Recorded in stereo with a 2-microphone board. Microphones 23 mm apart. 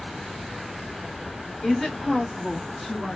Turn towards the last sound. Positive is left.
turn(degrees=15)  # may be behind; listen again after turning